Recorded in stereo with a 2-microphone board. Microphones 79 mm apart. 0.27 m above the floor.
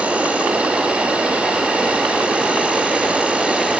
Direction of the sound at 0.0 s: 15° right (ahead or behind).